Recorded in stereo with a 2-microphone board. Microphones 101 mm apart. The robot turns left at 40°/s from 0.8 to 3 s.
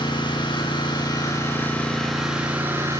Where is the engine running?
55° left, 7.5 m; by 3.0 s 35° right, 7.5 m.